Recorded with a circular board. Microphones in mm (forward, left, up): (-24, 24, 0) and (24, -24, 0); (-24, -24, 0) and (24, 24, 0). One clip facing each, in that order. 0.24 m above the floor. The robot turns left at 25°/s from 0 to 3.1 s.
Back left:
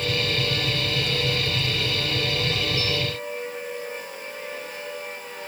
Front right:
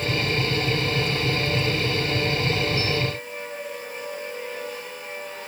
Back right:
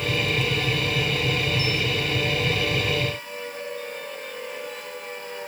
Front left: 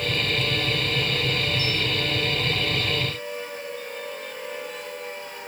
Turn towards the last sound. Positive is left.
No sound to turn to.